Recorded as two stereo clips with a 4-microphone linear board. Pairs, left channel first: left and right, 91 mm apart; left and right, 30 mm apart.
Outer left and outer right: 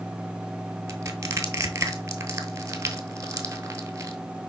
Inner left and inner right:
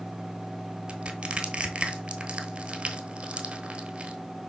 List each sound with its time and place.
0.9 s crushing: 35° right (ahead or behind), 1.1 m